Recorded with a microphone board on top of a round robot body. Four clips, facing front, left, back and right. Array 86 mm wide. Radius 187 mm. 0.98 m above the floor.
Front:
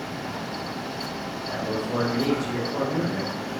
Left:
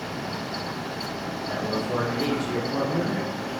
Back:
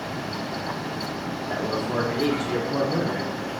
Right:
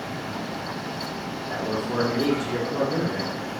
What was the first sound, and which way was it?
A man speaking, 165° left.